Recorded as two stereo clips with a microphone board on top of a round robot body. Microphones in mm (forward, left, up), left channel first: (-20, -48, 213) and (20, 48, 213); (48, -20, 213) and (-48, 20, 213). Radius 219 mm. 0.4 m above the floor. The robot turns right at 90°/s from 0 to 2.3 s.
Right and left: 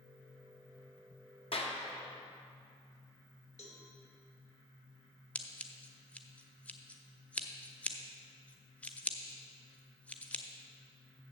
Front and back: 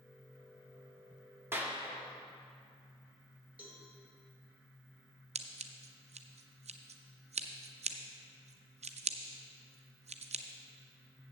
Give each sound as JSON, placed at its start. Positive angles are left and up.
{"t": 1.5, "sound": "a clap", "azimuth_deg": -135, "distance_m": 1.6}
{"t": 3.6, "sound": "a cowbell", "azimuth_deg": -125, "distance_m": 1.4}
{"t": 5.3, "sound": "scissors", "azimuth_deg": 170, "distance_m": 0.6}